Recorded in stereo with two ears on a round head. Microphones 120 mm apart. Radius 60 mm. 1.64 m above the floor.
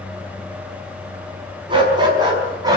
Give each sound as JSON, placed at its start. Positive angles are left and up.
{"t": 1.7, "sound": "a dog barking", "side_deg": -35, "distance_m": 5.5}